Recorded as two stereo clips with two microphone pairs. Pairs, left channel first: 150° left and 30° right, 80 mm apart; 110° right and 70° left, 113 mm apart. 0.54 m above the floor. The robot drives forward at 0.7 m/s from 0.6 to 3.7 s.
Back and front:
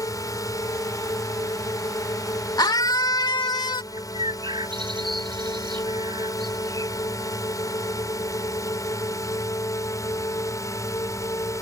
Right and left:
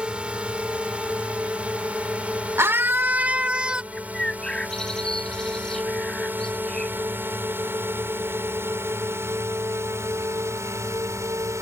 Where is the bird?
25° right.